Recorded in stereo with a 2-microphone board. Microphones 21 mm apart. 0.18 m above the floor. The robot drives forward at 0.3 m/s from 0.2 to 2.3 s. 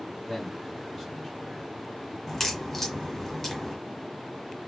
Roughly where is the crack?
Centre.